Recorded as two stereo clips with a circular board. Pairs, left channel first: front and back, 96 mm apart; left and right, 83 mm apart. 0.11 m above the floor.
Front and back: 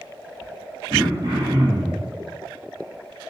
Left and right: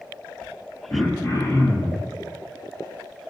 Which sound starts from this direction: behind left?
Throat clearing, at 0.9 s.